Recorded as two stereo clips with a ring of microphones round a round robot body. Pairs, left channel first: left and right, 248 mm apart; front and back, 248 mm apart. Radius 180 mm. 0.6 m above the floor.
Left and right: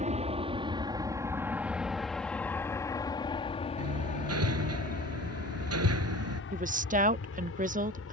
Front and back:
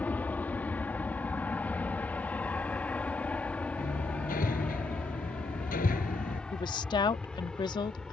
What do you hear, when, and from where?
0.0 s an aircraft: 75° right; by 8.1 s 85° left
3.8 s hammering: 70° right
6.5 s a woman speaking: 60° right